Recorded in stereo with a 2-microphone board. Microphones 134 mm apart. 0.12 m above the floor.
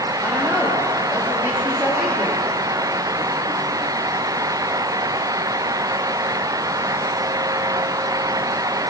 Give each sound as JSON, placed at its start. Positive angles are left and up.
{"t": 0.2, "sound": "a woman speaking", "side_deg": 0, "distance_m": 6.0}